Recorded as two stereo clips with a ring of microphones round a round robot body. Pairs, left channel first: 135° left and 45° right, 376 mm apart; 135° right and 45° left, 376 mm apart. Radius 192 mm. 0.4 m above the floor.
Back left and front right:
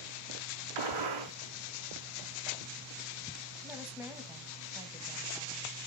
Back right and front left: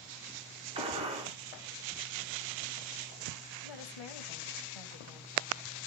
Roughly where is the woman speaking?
Behind right.